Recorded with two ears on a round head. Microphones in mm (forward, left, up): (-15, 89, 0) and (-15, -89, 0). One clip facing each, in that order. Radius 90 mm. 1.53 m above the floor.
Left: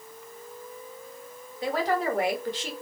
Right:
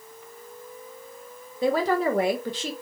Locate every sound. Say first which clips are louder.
1.6 s a woman speaking: right 4 dB; 75° right (ahead or behind), 1.6 m